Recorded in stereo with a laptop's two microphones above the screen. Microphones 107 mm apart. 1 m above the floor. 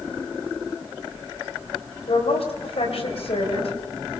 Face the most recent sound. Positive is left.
turn(degrees=65)  # may be behind; listen again after turning